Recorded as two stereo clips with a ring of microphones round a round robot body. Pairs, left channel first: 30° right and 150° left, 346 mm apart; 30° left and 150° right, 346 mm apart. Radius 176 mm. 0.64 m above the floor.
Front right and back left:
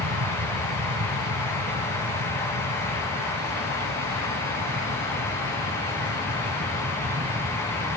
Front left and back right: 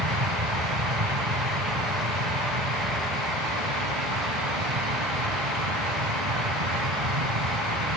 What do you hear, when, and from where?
0.0 s an aircraft: 165° right; by 8.0 s 140° right